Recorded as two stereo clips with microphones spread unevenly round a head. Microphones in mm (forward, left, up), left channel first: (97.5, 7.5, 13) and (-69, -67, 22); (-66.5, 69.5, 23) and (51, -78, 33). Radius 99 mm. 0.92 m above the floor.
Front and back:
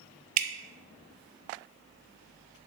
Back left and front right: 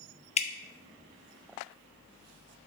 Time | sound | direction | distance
0.4 | dripping | 175° right | 0.7 m